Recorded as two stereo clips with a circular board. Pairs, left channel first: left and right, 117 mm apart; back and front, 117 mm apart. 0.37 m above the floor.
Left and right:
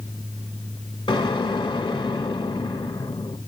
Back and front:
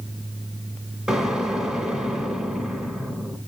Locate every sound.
1.1 s an explosion: 85° left, 1.8 m